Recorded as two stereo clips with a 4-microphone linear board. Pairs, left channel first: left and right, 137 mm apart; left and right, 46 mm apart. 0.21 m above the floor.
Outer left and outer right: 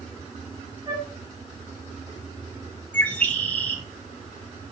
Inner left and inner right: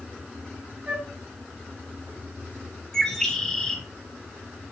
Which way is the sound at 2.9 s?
10° left (ahead or behind).